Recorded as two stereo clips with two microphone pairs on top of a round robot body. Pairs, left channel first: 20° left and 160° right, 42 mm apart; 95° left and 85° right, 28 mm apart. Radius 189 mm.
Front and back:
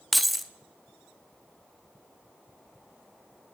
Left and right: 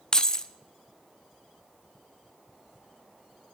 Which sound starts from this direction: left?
Keys jangling, at 0.1 s.